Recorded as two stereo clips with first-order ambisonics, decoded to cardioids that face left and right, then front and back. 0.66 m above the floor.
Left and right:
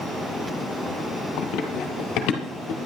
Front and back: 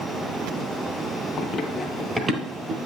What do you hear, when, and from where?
1.4 s running footsteps: 60° left, 1.2 m; by 2.8 s 125° left, 1.1 m